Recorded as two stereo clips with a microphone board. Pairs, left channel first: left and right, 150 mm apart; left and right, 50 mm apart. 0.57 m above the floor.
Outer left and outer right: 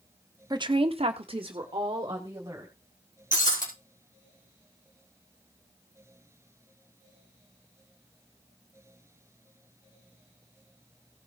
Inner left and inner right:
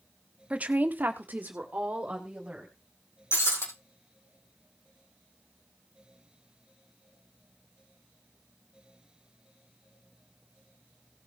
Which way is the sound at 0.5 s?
30° right (ahead or behind).